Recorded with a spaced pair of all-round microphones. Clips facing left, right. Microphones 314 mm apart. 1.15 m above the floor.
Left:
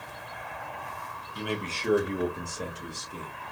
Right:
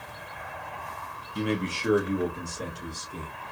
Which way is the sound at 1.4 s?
35° right (ahead or behind).